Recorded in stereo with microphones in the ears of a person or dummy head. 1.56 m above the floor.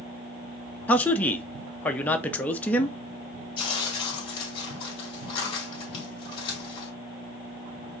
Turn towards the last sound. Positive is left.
turn(degrees=35)  # may be behind; listen again after turning